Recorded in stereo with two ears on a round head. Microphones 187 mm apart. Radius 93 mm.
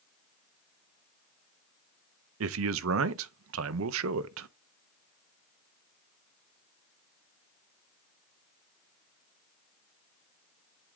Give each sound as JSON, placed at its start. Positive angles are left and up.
{"t": 2.4, "sound": "a man speaking", "side_deg": -70, "distance_m": 0.6}